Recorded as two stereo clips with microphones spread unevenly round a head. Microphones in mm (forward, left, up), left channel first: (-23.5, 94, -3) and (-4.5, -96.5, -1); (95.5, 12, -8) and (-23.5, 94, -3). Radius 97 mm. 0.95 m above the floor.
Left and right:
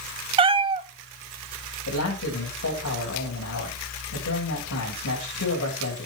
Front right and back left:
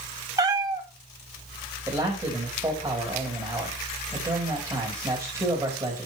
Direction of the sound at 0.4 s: 145° right.